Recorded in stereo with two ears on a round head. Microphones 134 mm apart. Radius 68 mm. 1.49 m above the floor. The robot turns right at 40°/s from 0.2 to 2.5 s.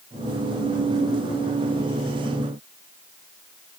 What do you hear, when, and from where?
Only background noise.